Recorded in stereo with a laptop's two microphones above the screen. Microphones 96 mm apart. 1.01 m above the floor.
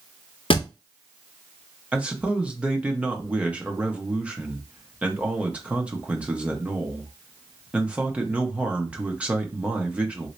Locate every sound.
0.5 s a thud: 65° left (ahead or behind), 0.6 m
1.9 s a man speaking: 15° right (ahead or behind), 0.7 m